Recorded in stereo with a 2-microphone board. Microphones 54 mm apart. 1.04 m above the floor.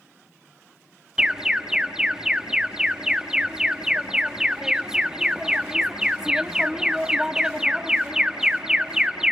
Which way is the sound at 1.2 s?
10° right (ahead or behind).